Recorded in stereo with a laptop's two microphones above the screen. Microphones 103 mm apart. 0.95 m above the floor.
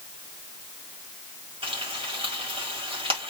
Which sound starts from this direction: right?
Frying, at 1.6 s.